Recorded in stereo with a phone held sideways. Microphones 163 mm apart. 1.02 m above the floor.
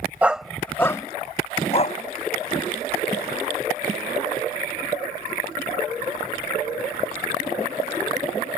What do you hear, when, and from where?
0.2 s a dog barking: 10° right (ahead or behind); by 2.0 s 45° left (ahead or behind)